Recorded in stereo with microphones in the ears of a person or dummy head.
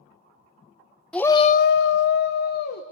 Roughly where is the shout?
Centre.